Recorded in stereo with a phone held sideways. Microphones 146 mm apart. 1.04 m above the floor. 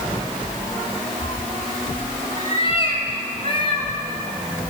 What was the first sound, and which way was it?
A cat meowing, 50° left (ahead or behind).